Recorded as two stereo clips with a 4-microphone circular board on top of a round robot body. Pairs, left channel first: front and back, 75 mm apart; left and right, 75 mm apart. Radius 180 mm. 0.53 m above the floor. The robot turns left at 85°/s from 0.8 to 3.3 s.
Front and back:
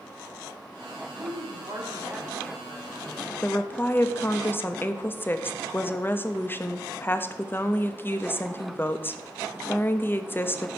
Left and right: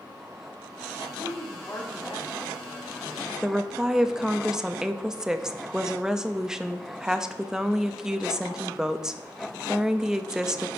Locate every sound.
1.2 s a woman speaking: 175° right, 2.0 m; by 3.3 s 5° left, 2.0 m
3.4 s a woman speaking: 15° right, 0.7 m